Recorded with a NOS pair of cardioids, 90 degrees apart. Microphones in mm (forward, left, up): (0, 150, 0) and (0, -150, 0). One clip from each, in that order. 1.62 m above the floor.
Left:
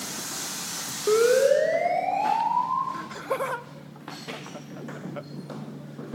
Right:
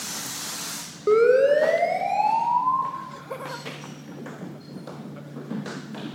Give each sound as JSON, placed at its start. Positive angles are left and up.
{"t": 1.1, "sound": "a siren", "azimuth_deg": -15, "distance_m": 5.0}
{"t": 2.9, "sound": "laughter", "azimuth_deg": 45, "distance_m": 1.3}